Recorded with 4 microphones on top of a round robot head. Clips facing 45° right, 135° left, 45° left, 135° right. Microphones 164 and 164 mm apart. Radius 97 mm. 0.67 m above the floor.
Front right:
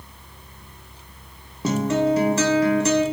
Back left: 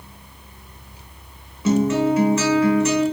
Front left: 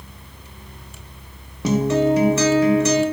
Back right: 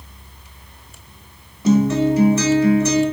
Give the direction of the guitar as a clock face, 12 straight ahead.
12 o'clock.